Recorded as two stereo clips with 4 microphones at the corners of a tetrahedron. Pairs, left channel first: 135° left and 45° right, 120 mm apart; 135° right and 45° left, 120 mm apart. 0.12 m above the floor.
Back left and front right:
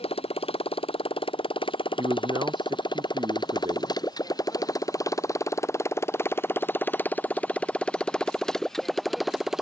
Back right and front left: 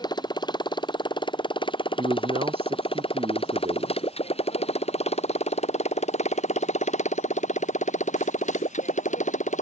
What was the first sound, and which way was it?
A motorcycle, 170° left.